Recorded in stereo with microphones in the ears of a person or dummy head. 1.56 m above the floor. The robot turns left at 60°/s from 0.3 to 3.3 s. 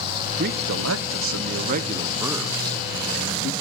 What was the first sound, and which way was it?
A man speaking, 50° right.